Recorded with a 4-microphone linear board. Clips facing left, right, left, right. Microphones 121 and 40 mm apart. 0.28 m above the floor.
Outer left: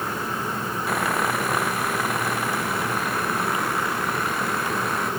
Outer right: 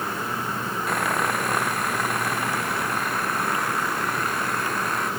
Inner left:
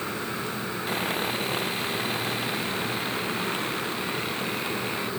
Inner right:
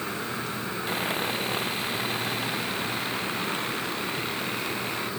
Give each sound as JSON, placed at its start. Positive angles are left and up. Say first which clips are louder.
{"t": 0.9, "sound": "sawing", "louder": "outer left 1 dB, even", "side_deg": 0}